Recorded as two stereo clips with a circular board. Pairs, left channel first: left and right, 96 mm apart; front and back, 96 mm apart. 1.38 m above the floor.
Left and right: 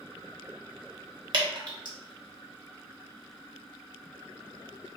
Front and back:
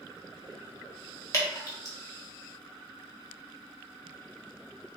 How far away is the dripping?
About 0.9 m.